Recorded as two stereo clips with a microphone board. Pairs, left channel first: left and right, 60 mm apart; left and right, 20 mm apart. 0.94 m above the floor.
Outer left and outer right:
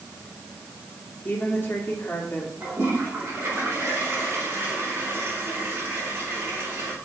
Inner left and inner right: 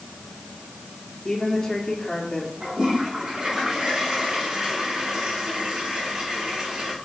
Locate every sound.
1.2 s a woman speaking: 35° left (ahead or behind), 3 m
2.6 s a toilet flushing: 35° right (ahead or behind), 4.5 m